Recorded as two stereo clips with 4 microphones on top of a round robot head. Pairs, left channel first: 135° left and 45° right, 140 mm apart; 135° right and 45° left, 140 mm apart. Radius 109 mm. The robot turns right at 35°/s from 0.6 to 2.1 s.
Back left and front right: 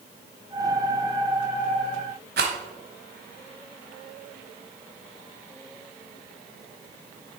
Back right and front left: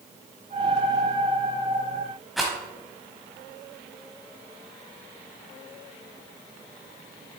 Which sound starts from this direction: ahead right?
A rattle, at 2.4 s.